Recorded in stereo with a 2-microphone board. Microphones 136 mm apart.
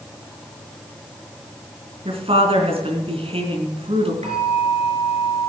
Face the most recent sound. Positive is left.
turn(degrees=-55)  # may be behind; listen again after turning